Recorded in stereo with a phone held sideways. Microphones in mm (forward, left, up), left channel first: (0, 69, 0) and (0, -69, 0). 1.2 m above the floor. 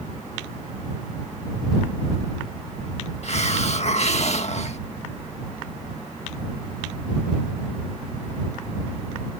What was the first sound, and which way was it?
A hiss, 55° left (ahead or behind).